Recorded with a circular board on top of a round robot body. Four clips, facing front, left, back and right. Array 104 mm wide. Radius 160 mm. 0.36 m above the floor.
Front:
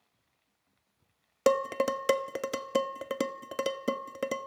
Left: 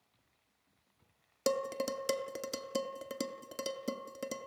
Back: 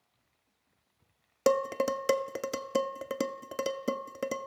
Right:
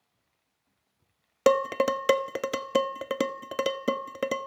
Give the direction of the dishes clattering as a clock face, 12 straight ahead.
3 o'clock.